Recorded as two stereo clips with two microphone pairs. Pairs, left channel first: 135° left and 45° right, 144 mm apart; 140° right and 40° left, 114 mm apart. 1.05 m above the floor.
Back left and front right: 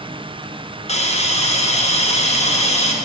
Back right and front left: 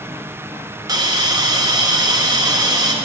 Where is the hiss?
95° left, 0.7 m.